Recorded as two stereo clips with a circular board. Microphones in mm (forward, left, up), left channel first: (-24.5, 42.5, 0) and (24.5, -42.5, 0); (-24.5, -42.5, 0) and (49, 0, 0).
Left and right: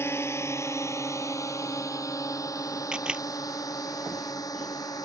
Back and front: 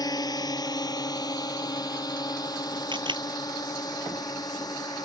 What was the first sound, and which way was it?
A drone, straight behind.